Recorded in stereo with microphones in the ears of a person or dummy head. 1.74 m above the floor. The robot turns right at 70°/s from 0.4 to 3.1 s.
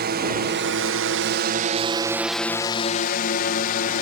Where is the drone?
50° right (ahead or behind); by 4.0 s 45° left (ahead or behind).